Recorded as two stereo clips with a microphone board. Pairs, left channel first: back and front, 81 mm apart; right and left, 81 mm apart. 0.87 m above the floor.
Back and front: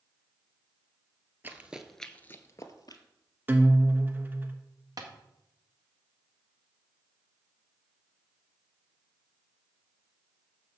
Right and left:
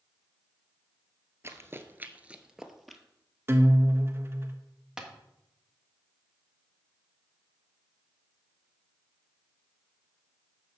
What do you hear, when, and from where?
1.4 s running footsteps: 50° left, 1.1 m; by 3.0 s 175° right, 1.3 m
3.5 s a guitar: 50° left, 1.0 m
5.0 s tapping: 10° left, 1.4 m